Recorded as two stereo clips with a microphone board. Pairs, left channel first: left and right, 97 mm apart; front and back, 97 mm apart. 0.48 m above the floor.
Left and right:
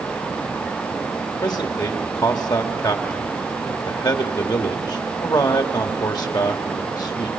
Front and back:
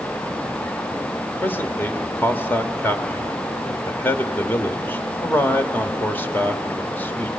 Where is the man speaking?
60° left, 1.3 m.